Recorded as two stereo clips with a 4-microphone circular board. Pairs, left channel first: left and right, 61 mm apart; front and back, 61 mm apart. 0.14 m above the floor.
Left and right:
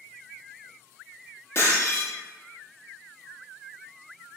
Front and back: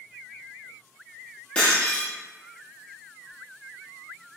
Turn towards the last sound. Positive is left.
turn(degrees=70)